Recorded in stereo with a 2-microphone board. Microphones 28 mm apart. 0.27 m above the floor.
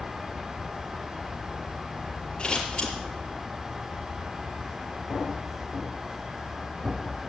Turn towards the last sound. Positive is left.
turn(degrees=35)  # may be behind; listen again after turning